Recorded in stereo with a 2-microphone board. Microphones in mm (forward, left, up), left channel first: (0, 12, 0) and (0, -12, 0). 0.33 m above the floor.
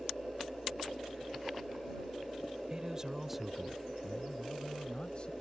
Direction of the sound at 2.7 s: 30° right (ahead or behind).